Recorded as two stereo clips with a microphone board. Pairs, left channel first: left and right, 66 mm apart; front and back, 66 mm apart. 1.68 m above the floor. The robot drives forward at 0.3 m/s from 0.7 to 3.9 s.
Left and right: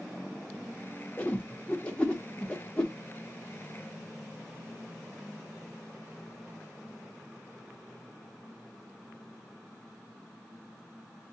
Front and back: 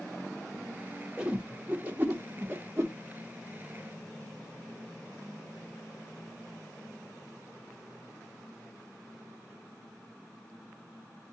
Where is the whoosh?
125° left, 0.9 m; by 2.9 s 160° left, 1.1 m.